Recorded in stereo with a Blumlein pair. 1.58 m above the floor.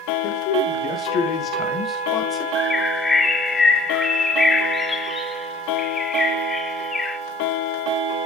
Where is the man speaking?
35° left, 3 m; by 2.5 s 20° left, 1.9 m.